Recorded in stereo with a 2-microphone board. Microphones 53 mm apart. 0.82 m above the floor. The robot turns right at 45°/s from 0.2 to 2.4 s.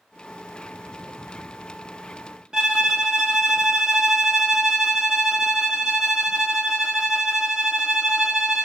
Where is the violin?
15° right (ahead or behind), 0.9 m.